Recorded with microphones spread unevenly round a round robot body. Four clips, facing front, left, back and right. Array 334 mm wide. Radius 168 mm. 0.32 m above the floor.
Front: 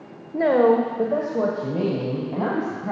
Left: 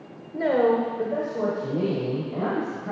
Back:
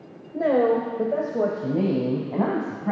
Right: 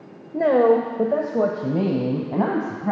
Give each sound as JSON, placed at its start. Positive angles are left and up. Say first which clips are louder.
{"t": 0.3, "sound": "a woman speaking", "louder": "right 4 dB, front 3 dB", "azimuth_deg": -65, "distance_m": 1.1}